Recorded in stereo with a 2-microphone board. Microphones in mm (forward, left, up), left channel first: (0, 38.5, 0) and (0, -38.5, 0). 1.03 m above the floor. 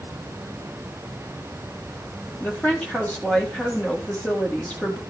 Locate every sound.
2.4 s a woman speaking: 15° left (ahead or behind), 1.9 m